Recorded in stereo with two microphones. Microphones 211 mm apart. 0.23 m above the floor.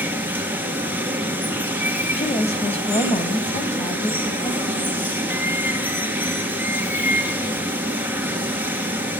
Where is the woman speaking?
30° left (ahead or behind), 1.5 m.